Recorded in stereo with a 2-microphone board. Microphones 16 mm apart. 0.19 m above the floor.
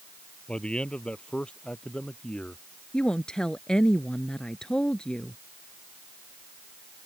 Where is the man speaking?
75° left (ahead or behind); by 2.6 s 70° left (ahead or behind).